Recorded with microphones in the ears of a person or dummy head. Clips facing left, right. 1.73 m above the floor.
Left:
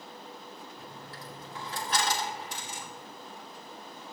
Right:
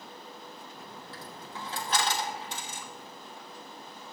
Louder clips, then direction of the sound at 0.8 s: Even; 30° right (ahead or behind).